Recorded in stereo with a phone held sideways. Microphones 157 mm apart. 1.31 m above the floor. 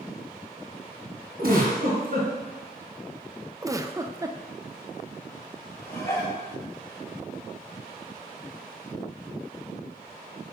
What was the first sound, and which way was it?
A giggle, 70° right (ahead or behind).